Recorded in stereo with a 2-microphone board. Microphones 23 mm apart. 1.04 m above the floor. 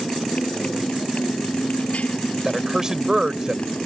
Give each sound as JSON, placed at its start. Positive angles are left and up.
{"t": 0.0, "sound": "a motorcycle", "side_deg": 60}
{"t": 2.5, "sound": "a man speaking", "side_deg": -25}